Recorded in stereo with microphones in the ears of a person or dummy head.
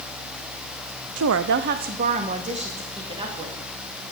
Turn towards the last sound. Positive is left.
turn(degrees=-35)  # may be behind; listen again after turning